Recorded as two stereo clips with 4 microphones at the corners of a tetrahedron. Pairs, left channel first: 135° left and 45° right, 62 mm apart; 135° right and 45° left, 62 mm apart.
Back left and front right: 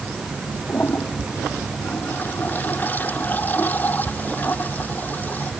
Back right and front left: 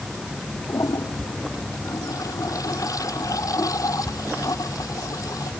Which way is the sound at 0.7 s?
160° right.